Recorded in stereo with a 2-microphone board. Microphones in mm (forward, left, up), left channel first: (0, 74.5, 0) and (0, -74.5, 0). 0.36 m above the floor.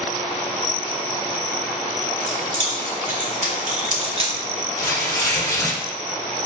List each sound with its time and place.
2.3 s keys jangling: 60° right (ahead or behind), 1.7 m; by 4.3 s 30° right (ahead or behind), 0.6 m
4.8 s tearing paper: 25° left (ahead or behind), 0.8 m